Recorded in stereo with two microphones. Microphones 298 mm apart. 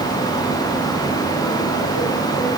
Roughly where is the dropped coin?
I don't hear a dropped coin.